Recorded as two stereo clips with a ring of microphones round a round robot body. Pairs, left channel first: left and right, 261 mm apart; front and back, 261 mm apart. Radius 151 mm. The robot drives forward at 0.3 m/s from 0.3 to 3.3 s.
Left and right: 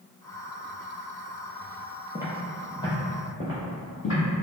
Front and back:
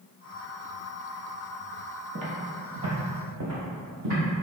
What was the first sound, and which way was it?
Footsteps, 165° right.